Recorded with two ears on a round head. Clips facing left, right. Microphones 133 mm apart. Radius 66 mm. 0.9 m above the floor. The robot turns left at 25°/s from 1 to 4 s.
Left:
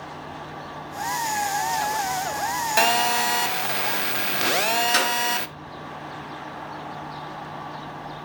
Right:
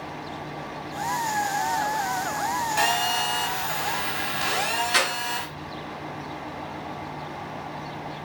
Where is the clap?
50° left (ahead or behind), 6 m.